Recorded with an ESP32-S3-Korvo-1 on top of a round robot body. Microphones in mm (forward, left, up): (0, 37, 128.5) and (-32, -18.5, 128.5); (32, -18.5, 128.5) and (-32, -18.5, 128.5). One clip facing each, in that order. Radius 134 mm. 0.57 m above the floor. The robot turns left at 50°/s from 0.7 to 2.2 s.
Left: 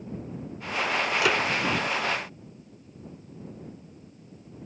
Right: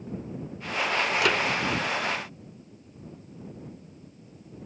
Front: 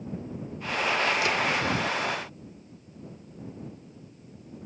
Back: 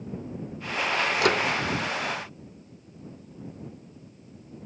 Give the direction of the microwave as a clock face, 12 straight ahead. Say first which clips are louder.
Left 1 dB, back 3 dB; 7 o'clock.